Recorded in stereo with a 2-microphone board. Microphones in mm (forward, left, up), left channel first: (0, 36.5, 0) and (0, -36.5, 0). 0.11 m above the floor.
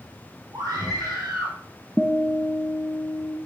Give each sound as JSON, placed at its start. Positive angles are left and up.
{"t": 0.5, "sound": "a scream", "side_deg": -55, "distance_m": 3.0}
{"t": 2.0, "sound": "a guitar", "side_deg": -20, "distance_m": 1.2}